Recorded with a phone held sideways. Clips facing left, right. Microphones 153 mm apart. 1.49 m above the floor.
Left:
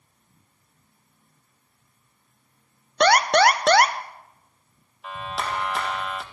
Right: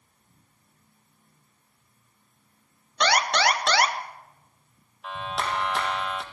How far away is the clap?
About 1.4 m.